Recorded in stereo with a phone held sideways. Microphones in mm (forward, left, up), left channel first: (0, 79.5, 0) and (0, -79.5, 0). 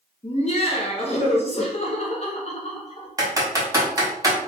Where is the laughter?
45° left (ahead or behind), 1.0 m.